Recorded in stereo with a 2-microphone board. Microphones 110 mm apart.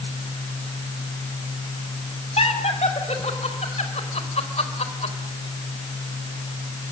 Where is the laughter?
70° left (ahead or behind), 5 m; by 5.2 s 75° left (ahead or behind), 4 m.